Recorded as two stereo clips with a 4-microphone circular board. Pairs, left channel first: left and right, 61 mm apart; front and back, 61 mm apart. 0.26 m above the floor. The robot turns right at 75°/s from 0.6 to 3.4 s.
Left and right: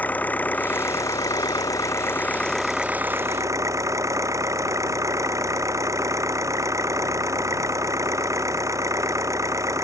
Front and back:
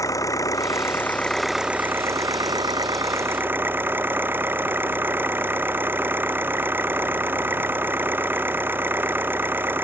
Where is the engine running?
25° left; by 9.9 s 125° right.